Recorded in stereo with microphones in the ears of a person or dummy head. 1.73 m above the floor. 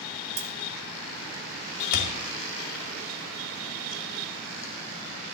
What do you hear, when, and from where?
0.4 s a dropped coin: 60° right (ahead or behind), 2.5 m
1.9 s a thud: 55° left (ahead or behind), 2.5 m